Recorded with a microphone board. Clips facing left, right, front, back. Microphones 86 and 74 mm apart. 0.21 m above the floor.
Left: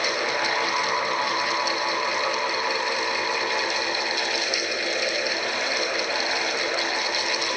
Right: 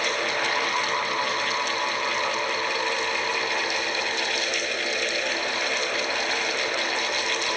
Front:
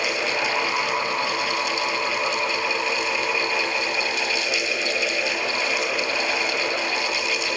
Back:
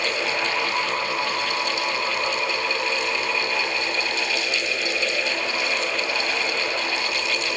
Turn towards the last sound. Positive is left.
No sound to turn to.